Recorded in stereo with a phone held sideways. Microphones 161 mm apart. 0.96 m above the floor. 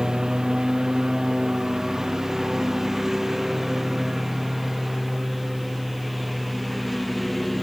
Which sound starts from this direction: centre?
A lawn mower, at 0.0 s.